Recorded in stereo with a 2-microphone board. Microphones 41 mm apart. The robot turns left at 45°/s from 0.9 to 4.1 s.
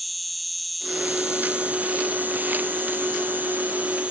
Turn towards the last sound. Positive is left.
turn(degrees=-140)